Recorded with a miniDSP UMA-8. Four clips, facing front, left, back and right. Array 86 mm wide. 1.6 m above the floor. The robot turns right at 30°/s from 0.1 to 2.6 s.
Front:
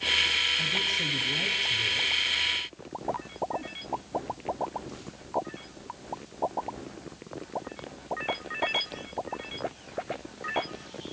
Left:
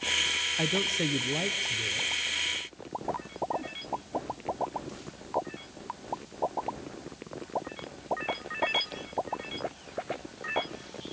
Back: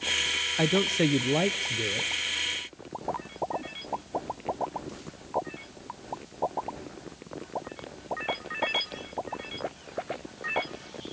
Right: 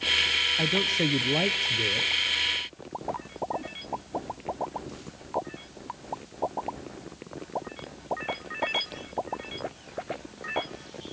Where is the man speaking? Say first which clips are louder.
Right 2 dB, back 9 dB; 175° right, 0.6 m; by 2.1 s 130° right, 0.6 m.